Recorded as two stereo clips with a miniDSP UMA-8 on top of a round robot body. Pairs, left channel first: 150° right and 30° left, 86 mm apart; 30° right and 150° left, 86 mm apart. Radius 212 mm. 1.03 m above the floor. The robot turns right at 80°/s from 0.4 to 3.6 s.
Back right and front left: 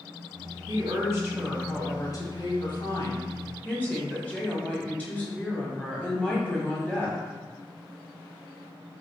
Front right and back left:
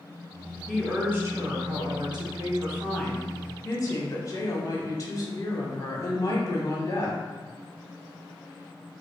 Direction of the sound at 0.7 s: 50° left.